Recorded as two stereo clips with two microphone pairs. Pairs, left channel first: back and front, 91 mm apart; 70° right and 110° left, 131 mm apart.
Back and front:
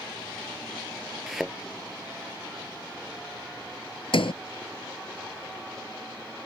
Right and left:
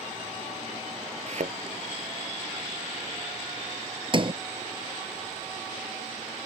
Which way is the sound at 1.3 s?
85° left.